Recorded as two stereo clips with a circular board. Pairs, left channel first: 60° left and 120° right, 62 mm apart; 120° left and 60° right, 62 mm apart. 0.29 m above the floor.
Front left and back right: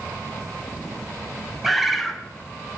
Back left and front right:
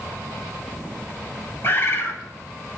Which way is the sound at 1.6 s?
155° left.